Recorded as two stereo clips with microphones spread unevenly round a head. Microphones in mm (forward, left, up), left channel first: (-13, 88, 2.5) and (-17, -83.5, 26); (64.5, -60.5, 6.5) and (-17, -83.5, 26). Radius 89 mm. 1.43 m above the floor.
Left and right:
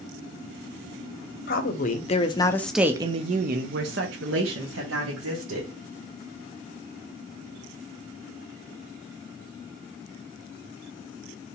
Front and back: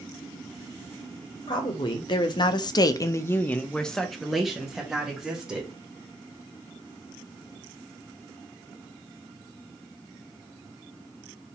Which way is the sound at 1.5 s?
55° left.